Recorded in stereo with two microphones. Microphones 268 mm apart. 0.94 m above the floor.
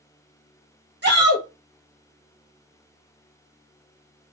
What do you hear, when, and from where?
1.0 s a shout: 40° right (ahead or behind), 1.1 m